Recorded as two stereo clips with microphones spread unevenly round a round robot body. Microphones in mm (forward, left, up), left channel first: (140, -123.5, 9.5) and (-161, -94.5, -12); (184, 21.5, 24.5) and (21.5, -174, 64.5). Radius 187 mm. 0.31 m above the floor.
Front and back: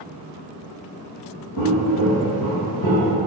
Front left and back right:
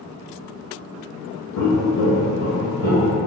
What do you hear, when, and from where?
1.6 s footsteps: 45° left, 1.2 m; by 3.1 s 50° left, 3.5 m